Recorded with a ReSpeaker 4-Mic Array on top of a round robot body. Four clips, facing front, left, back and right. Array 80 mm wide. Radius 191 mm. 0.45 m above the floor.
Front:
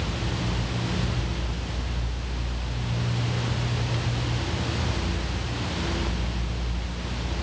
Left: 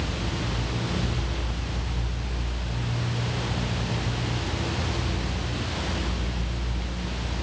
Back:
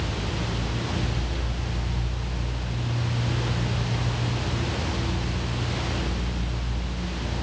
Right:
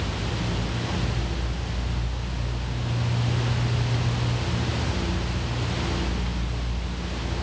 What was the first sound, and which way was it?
Only background noise.